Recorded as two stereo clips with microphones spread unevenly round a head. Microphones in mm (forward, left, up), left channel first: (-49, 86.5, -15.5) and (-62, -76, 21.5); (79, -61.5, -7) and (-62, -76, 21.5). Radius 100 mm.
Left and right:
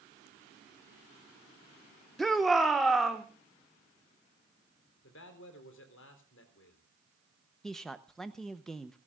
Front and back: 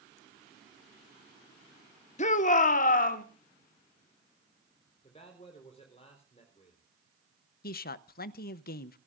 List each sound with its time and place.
2.2 s a shout: 5° left, 1.0 m; by 3.2 s straight ahead, 1.6 m
5.0 s a man speaking: 70° left, 4 m
7.6 s a man speaking: straight ahead, 0.8 m